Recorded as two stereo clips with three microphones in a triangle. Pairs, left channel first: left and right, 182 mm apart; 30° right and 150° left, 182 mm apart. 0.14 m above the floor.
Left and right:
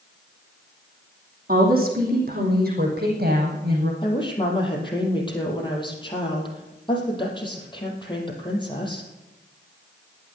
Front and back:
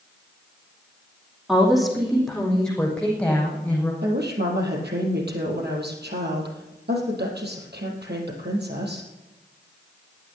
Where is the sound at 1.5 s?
125° right, 6 m; by 3.9 s 110° right, 6.5 m.